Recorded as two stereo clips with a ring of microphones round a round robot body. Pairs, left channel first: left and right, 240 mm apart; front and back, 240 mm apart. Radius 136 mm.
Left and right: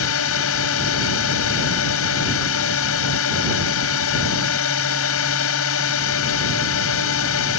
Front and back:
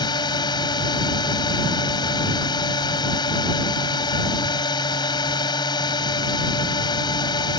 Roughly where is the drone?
Left.